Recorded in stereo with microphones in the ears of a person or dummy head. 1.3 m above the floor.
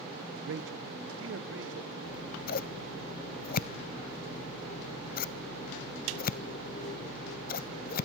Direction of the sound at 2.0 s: 40° left (ahead or behind).